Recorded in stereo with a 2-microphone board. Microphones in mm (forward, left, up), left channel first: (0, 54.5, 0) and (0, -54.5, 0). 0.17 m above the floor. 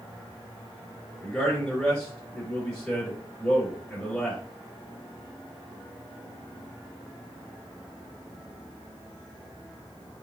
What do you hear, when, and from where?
1.2 s a man speaking: 5° left (ahead or behind), 2.5 m